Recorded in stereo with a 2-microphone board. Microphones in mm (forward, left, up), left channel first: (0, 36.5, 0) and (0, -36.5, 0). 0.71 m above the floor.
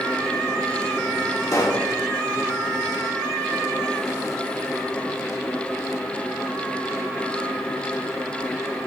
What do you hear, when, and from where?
1.5 s a pop: 55° left (ahead or behind), 2.0 m